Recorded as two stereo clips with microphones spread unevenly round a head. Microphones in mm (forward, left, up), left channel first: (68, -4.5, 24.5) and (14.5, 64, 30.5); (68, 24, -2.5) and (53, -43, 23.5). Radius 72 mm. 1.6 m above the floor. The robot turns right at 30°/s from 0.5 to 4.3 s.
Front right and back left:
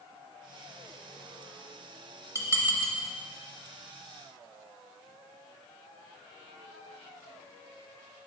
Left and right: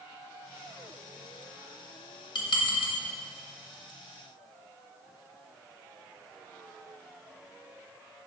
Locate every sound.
2.4 s dishes clattering: 85° left, 0.8 m; by 3.0 s 105° left, 0.8 m